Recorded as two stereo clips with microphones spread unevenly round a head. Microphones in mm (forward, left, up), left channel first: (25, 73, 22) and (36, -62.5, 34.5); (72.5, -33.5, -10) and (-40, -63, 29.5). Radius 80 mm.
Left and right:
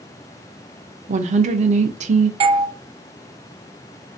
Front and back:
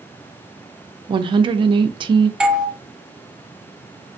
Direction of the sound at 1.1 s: 110° right.